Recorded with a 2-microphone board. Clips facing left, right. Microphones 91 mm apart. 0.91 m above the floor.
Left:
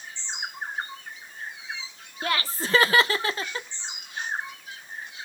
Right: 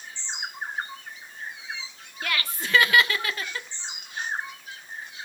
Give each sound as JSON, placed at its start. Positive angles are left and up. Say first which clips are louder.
{"t": 2.2, "sound": "laughter", "louder": "left 3 dB", "side_deg": 30, "distance_m": 0.6}